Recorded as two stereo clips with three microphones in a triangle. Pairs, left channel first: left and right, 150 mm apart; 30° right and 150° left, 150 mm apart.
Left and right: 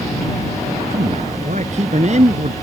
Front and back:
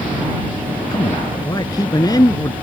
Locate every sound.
0.9 s a man speaking: 85° right